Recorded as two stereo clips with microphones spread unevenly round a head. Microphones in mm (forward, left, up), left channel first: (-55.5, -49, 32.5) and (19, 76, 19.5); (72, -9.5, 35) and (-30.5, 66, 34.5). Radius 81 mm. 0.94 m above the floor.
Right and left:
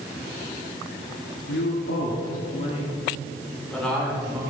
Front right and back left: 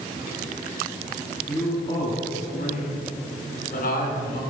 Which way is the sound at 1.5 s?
115° right.